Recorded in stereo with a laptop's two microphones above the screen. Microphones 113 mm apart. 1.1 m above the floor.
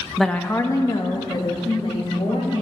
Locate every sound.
0.2 s a woman speaking: 5° right (ahead or behind), 0.6 m; by 2.6 s 50° left (ahead or behind), 2.5 m